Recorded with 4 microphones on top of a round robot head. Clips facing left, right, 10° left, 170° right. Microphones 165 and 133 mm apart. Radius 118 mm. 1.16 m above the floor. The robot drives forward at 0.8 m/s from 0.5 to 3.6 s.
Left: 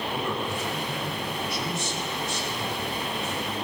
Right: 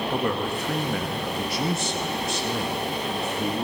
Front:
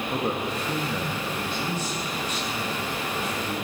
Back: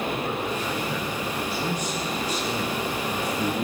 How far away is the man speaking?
About 1.7 m.